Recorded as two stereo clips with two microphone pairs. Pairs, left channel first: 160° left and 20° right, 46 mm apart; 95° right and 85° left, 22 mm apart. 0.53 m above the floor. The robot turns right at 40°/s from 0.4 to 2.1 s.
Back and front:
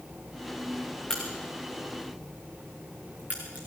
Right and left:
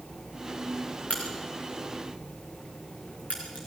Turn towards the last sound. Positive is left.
turn(degrees=-80)